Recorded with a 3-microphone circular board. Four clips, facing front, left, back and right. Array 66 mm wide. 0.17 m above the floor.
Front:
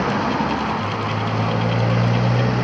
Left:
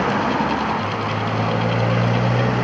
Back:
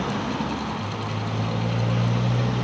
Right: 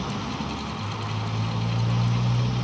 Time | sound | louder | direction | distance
0.0 | a motorcycle | left 12 dB, front 7 dB | 65° left | ?